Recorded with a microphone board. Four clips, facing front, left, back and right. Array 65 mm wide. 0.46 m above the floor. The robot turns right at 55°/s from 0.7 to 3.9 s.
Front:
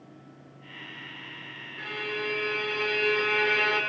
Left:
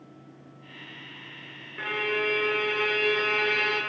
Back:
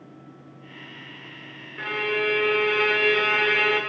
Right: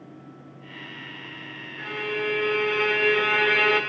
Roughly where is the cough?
I don't hear a cough.